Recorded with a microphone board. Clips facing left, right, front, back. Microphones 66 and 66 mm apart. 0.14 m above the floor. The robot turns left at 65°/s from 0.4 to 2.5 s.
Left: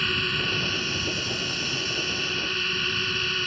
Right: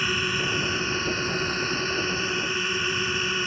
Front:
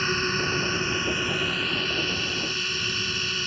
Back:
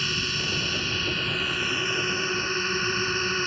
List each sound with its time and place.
0.0 s a drone: 20° right; by 3.5 s 155° right